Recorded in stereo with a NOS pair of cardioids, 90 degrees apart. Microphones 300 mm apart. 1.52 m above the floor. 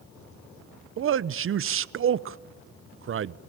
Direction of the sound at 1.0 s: 50° right.